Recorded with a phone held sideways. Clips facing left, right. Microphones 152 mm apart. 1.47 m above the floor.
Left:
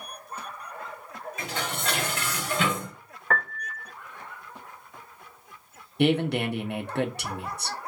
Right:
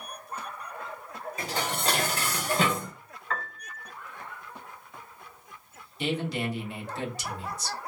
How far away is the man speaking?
About 0.6 m.